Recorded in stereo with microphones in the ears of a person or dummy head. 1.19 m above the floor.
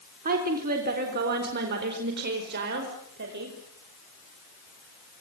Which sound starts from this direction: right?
A woman speaking, at 0.2 s.